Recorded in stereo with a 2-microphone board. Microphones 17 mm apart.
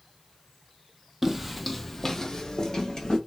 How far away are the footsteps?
About 0.5 m.